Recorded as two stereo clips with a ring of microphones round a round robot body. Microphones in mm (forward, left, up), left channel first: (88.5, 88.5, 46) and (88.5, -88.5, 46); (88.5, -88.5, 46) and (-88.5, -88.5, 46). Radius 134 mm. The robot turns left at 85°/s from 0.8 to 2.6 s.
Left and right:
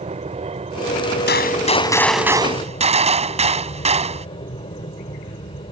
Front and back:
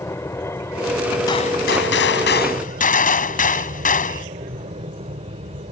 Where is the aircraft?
65° right; by 5.7 s 140° left.